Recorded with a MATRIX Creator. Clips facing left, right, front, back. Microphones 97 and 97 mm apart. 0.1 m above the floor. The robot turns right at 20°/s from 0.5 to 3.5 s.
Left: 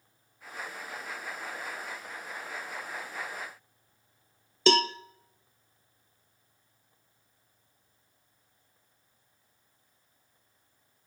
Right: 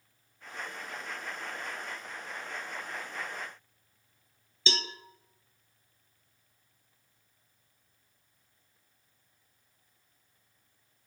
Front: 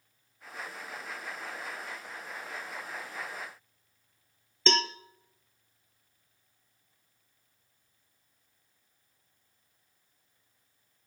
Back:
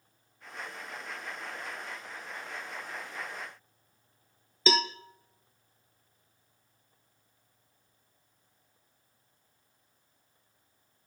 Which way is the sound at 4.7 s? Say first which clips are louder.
Left 12 dB, back 1 dB; 95° left.